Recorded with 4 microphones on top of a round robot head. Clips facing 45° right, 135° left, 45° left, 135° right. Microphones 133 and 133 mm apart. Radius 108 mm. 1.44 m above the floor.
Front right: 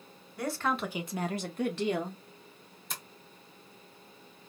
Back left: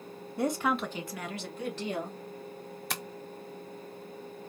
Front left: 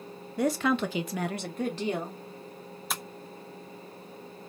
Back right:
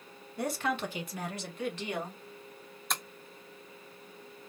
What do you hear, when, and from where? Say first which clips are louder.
0.4 s a woman speaking: back left 3 dB, front left 6 dB; 70° left, 0.7 m; by 2.2 s 25° right, 1.1 m
2.9 s tapping: back left 5 dB, even; 130° left, 0.5 m